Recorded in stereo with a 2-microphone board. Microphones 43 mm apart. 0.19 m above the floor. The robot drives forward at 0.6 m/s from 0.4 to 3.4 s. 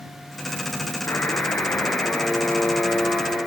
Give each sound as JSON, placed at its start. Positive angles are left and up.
{"t": 1.1, "sound": "a buzzer", "side_deg": 70, "distance_m": 0.6}